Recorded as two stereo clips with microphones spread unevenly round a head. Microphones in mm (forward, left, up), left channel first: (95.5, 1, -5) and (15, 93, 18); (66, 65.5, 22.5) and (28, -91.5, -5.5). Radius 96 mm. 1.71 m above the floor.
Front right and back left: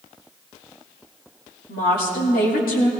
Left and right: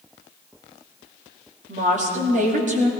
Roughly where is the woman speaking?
Ahead right.